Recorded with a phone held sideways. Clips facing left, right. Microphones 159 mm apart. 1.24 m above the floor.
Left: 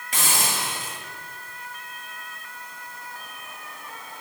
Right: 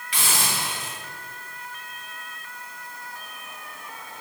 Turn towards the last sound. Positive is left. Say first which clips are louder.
# left 1 dB
turn(degrees=45)  # may be behind; listen again after turning